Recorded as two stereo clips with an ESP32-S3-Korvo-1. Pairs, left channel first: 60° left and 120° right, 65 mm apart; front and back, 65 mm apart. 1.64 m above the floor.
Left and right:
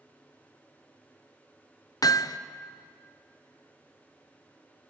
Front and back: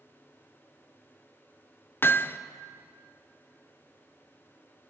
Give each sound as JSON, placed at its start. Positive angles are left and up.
{"t": 2.0, "sound": "hammering", "azimuth_deg": 50, "distance_m": 0.5}